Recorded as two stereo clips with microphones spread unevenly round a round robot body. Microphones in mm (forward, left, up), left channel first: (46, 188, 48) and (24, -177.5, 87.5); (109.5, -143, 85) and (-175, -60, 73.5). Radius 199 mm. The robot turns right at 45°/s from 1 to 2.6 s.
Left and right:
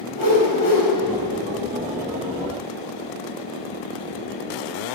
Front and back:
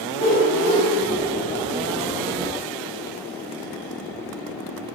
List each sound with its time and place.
0.1 s a whoosh: 125° left, 4 m